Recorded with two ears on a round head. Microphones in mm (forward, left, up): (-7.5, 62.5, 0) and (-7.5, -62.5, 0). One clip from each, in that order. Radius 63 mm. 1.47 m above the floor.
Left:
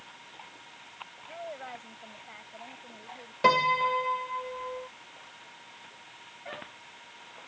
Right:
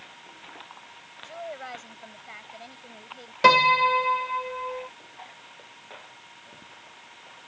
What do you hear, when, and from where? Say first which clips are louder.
1.2 s a woman speaking: right 4 dB; 65° right (ahead or behind); by 3.3 s 60° right (ahead or behind)
3.4 s a piano: right 6 dB; 40° right (ahead or behind)